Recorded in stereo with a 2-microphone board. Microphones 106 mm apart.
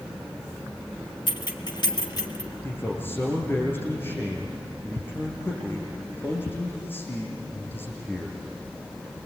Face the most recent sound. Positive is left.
turn(degrees=20)  # may be behind; listen again after turning